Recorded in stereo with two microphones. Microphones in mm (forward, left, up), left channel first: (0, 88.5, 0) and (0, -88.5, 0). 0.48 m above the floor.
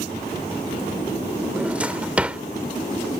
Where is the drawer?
5° right (ahead or behind).